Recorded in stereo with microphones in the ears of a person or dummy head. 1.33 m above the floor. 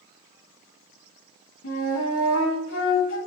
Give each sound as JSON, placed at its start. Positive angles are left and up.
{"t": 1.6, "sound": "a flute", "side_deg": 65, "distance_m": 1.3}